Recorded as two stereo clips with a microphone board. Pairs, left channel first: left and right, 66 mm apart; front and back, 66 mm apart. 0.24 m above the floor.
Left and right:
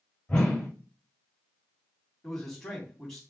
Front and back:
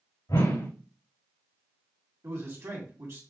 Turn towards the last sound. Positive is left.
turn(degrees=170)